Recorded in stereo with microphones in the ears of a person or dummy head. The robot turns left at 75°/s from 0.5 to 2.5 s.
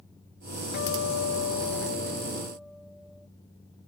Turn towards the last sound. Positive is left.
turn(degrees=-5)